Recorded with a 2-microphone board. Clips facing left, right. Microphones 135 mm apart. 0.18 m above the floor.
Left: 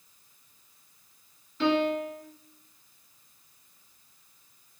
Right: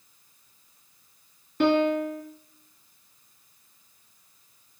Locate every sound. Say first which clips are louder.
1.6 s a piano: right 4 dB; 60° right (ahead or behind), 0.5 m